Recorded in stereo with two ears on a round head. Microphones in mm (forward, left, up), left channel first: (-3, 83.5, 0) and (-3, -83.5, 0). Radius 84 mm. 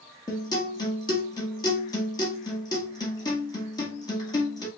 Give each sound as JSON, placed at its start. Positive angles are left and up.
{"t": 0.3, "sound": "a guitar", "side_deg": 20, "distance_m": 1.4}